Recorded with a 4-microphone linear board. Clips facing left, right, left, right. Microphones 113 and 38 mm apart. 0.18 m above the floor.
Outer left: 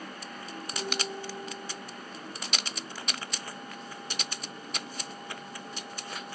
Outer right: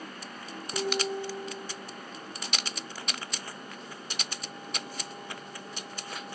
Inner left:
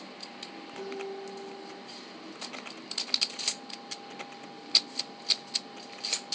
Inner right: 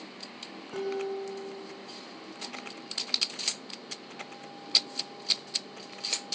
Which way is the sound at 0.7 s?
80° right.